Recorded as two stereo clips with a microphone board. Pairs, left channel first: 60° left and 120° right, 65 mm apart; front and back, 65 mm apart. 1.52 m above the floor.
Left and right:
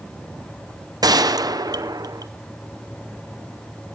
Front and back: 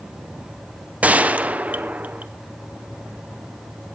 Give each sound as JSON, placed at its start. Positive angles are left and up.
{"t": 1.0, "sound": "a gunshot", "azimuth_deg": -110, "distance_m": 0.8}